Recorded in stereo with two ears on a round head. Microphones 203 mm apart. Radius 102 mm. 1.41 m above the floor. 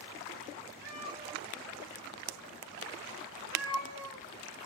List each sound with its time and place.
0.8 s a cat meowing: 20° left (ahead or behind), 1.5 m; by 4.2 s 20° right (ahead or behind), 0.9 m